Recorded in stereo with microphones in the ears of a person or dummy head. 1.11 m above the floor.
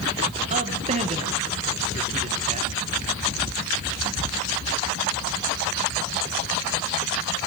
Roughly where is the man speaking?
Right.